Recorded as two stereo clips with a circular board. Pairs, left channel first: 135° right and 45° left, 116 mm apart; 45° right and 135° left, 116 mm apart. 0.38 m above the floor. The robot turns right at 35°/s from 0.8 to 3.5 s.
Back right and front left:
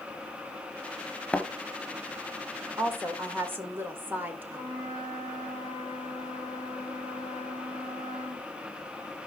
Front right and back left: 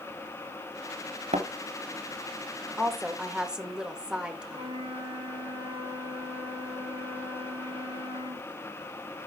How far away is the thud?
About 0.8 m.